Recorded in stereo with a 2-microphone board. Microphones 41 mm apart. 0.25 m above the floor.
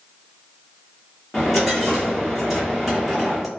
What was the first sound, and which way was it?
A dropped coin, 10° right (ahead or behind).